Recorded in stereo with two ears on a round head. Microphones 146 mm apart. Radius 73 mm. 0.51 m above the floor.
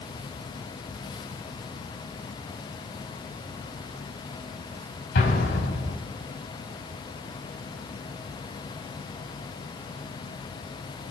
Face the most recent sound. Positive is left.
turn(degrees=70)  # may be behind; listen again after turning